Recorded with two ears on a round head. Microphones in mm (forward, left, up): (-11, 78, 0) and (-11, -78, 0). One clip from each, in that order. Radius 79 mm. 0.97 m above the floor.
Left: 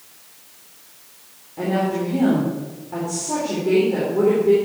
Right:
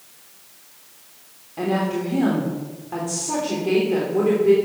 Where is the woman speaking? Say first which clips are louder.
Left 1 dB; 50° right (ahead or behind), 3 m.